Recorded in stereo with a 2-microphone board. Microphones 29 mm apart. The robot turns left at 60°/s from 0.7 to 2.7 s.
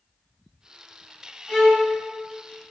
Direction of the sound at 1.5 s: 25° left (ahead or behind).